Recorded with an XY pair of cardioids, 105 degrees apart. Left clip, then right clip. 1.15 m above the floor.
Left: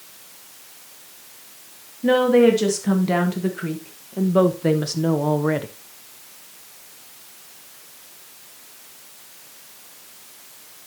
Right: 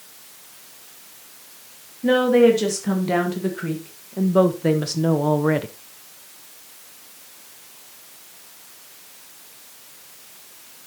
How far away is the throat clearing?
I don't hear throat clearing.